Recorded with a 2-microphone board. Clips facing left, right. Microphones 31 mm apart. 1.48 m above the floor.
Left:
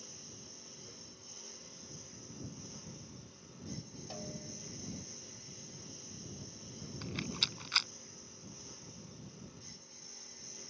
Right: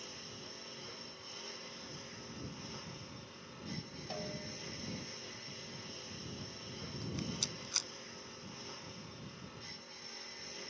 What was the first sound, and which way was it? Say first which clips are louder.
A lawn mower: right 5 dB; 40° right (ahead or behind).